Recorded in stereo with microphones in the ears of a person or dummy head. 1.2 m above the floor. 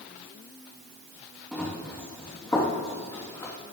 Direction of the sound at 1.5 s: Centre (ahead or behind).